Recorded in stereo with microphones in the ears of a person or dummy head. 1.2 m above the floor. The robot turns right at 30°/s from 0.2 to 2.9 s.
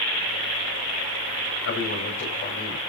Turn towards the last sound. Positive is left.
turn(degrees=160)